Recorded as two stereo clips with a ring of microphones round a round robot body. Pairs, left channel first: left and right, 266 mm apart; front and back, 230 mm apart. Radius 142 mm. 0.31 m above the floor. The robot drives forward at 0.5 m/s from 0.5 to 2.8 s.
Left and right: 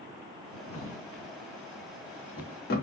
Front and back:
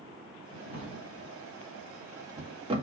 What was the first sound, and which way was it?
A drawer, 60° left.